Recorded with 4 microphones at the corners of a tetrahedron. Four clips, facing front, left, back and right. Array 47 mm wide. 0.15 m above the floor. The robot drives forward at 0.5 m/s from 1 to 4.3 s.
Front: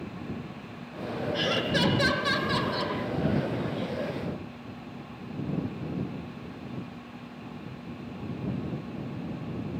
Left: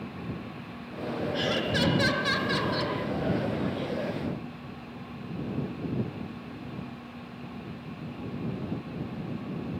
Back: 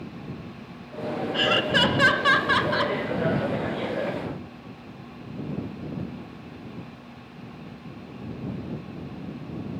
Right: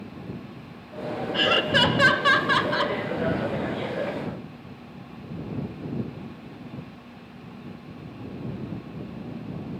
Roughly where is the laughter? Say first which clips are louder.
Right 8 dB, back 6 dB; behind right.